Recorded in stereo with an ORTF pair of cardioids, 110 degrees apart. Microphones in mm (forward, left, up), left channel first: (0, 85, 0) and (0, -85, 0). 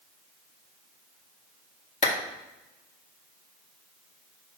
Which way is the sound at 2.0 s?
45° left.